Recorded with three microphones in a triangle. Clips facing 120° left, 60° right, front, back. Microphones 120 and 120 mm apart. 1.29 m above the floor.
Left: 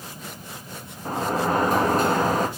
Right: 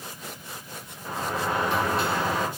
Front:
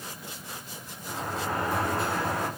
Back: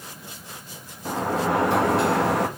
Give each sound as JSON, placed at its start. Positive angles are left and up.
{"t": 1.1, "sound": "a sliding door", "azimuth_deg": 170, "distance_m": 1.9}